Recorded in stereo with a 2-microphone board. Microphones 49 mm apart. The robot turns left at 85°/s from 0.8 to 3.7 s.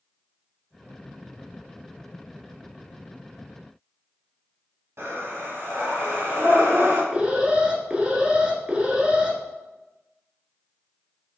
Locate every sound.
5.0 s breathing: 55° right (ahead or behind), 2 m
7.1 s an alarm: 20° right (ahead or behind), 0.9 m